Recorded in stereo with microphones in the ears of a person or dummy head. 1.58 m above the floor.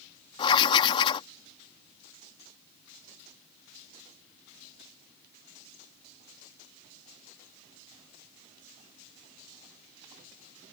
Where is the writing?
30° left (ahead or behind).